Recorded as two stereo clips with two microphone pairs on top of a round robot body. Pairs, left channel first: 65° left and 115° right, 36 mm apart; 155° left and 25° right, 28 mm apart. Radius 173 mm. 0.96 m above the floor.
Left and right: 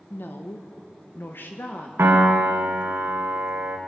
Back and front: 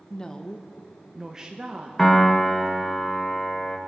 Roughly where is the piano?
Behind right.